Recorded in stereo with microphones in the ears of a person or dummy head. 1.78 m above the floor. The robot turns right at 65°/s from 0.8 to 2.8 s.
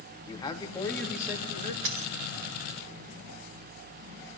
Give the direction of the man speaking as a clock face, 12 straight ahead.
7 o'clock.